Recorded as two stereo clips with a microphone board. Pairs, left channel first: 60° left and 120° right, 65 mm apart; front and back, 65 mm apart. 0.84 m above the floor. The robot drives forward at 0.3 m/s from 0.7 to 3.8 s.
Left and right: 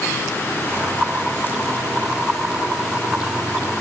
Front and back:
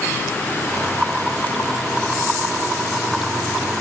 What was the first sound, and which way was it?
Only background noise.